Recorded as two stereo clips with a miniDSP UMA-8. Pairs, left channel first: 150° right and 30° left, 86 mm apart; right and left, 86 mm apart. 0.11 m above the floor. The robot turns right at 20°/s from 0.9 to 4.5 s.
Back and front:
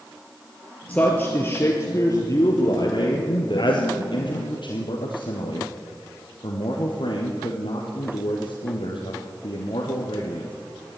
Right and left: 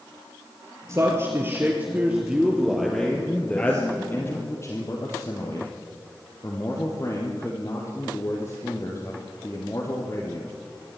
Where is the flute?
I don't hear a flute.